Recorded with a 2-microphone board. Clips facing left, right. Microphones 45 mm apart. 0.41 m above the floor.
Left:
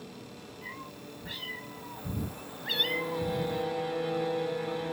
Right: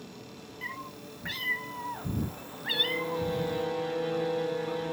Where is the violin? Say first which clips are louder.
Right 1 dB; 5° left (ahead or behind), 4 m.